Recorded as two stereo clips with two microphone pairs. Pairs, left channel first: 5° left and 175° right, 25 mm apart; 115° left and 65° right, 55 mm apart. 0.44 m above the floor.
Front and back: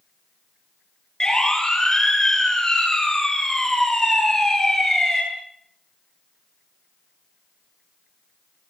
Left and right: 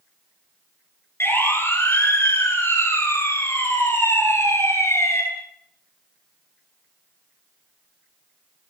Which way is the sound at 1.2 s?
70° left.